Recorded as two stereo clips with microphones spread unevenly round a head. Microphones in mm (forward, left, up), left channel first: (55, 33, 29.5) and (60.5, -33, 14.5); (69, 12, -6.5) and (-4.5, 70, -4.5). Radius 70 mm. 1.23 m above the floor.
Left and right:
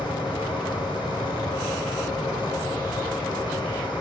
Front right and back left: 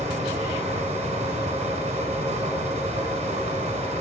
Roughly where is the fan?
Behind left.